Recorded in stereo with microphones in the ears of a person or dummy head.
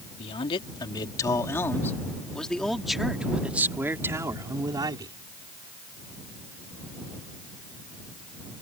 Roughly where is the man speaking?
Left.